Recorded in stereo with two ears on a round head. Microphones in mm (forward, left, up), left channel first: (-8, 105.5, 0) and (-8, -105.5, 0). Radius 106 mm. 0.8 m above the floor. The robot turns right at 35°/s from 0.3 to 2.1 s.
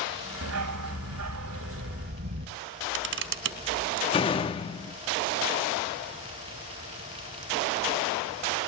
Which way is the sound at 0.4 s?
105° right.